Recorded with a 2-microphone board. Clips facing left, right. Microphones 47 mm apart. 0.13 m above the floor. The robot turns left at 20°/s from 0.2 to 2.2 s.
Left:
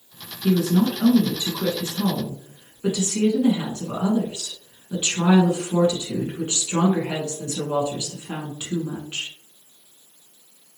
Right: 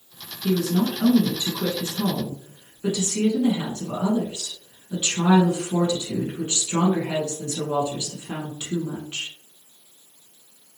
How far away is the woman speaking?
About 1.2 m.